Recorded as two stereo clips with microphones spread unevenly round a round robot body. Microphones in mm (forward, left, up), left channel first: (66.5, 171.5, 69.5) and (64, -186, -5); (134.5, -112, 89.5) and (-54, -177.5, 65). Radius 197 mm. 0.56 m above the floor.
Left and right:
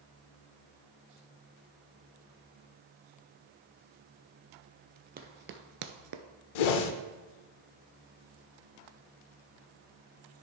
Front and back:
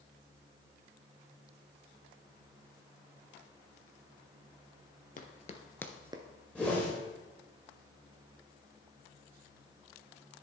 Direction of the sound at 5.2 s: 20° right.